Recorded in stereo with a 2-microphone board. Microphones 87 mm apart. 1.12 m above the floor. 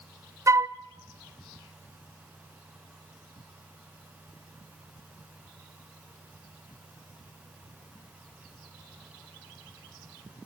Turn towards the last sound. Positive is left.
turn(degrees=-40)  # may be behind; listen again after turning